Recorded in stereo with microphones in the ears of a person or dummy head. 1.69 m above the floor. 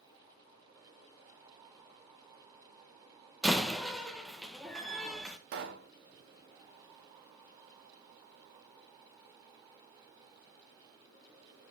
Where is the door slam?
Centre (ahead or behind), 1.3 m.